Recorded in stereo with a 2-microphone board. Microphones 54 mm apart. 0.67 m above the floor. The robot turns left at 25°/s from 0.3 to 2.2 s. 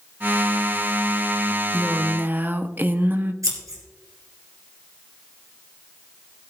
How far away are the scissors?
About 3 m.